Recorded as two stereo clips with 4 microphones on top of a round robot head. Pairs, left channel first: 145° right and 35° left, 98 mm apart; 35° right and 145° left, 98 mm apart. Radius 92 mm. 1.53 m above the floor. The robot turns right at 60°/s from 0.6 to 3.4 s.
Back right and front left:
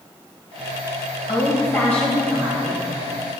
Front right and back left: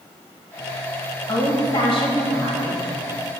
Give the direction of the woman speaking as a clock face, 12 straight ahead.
4 o'clock.